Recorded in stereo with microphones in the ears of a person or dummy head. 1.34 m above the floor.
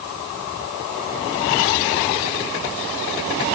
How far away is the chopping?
I don't hear chopping.